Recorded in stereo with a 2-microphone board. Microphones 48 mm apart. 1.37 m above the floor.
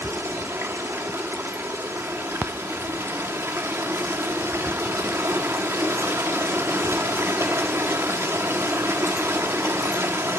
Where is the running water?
65° right (ahead or behind), 1.6 m.